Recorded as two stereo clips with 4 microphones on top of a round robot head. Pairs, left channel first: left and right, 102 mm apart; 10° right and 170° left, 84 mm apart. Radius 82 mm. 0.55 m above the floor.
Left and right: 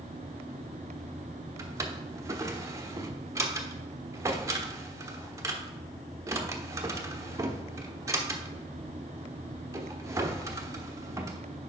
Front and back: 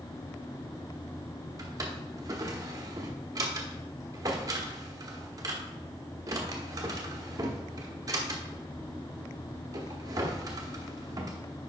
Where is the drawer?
145° right, 1.0 m.